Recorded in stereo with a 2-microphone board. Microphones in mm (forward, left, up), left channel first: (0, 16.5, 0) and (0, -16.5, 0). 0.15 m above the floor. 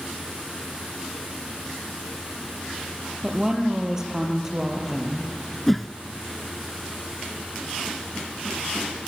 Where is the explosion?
No explosion in this recording.